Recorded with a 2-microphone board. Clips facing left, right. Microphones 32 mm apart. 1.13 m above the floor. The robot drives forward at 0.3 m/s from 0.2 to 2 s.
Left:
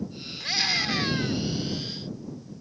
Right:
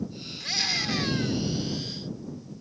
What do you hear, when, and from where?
0.4 s a scream: 15° left (ahead or behind)